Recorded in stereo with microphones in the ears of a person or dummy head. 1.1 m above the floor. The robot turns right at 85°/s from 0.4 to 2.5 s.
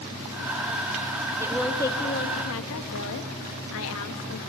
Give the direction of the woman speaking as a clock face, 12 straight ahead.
12 o'clock.